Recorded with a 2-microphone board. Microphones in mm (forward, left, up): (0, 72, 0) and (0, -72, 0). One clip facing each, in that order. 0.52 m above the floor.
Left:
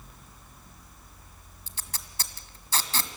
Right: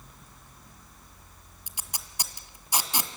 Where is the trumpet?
No trumpet in this recording.